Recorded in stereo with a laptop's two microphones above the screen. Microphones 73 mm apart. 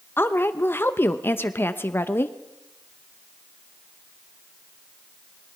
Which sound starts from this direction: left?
A woman speaking, at 0.2 s.